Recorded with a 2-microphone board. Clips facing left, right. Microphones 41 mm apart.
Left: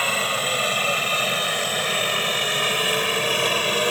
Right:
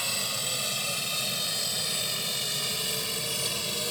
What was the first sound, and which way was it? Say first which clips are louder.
A helicopter: left 11 dB; 50° left (ahead or behind).